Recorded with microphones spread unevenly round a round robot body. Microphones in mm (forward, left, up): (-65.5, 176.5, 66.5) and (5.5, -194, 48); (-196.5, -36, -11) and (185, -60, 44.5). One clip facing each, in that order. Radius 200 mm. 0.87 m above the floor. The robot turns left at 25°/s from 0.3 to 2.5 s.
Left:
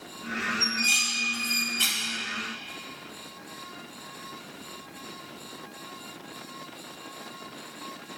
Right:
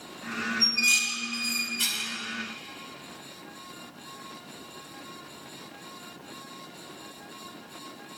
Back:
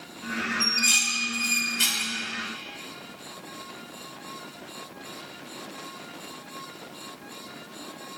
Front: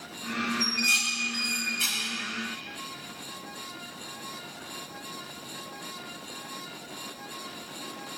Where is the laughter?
No laughter in this recording.